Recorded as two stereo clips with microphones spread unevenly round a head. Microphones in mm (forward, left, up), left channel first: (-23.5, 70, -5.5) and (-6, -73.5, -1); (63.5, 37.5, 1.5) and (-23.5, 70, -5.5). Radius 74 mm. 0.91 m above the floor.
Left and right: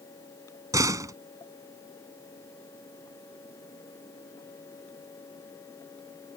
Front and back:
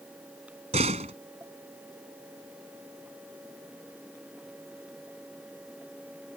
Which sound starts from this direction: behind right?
A door slam, at 0.7 s.